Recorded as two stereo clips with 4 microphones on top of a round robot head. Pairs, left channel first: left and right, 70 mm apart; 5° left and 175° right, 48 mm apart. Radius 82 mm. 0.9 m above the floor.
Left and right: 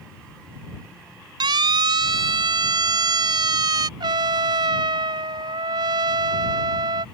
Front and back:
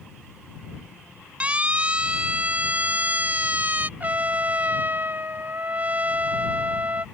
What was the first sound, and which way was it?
A siren, 110° right.